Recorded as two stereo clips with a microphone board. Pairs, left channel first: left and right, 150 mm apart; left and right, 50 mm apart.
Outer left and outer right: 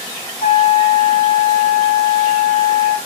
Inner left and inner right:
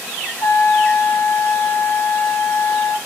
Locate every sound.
0.4 s a trumpet: 65° left (ahead or behind), 3.5 m